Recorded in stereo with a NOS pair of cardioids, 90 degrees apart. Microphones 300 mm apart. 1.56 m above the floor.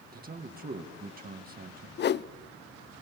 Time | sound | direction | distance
0.1 | a man speaking | 30° right | 2 m
2.0 | a whoosh | 35° left | 0.5 m